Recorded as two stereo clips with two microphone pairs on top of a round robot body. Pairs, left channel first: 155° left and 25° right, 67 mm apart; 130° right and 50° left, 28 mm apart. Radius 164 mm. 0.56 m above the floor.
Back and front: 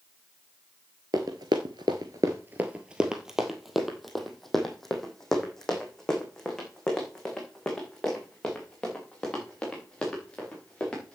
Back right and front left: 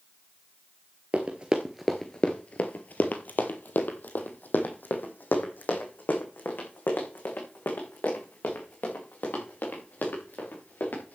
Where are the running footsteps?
15° left, 0.8 m; by 11.2 s 125° right, 6 m.